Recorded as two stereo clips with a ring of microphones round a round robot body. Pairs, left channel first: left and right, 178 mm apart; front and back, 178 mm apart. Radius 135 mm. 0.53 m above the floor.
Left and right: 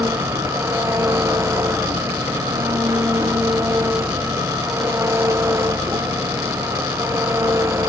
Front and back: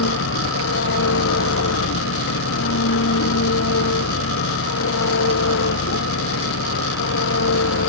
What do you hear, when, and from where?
0.0 s an engine running: 15° right